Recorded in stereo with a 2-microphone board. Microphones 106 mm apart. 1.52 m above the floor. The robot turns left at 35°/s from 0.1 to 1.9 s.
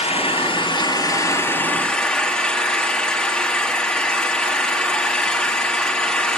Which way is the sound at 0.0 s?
70° left.